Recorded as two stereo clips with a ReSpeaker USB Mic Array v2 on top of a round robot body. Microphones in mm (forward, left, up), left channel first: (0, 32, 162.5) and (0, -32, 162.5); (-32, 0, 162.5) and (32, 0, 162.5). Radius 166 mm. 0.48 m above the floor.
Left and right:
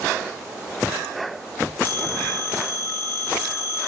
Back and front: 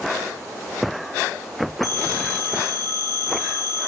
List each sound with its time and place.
1.8 s a phone ringing: 150° left, 3.5 m